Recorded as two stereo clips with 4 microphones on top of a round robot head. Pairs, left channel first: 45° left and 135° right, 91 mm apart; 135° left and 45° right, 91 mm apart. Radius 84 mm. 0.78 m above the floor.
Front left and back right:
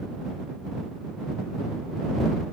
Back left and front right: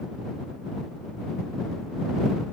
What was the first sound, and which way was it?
Only background noise.